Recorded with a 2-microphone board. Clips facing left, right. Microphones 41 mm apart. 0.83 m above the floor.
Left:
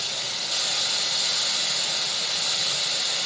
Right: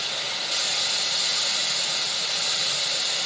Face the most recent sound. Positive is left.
turn(degrees=-20)  # may be behind; listen again after turning